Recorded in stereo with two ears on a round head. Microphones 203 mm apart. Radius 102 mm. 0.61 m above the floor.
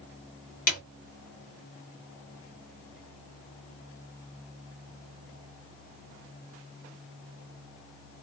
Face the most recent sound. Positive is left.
turn(degrees=40)  # may be behind; listen again after turning